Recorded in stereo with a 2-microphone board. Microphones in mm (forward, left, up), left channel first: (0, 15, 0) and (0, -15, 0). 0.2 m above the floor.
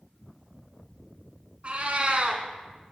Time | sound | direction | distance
1.6 | a cat meowing | 45° right (ahead or behind) | 0.8 m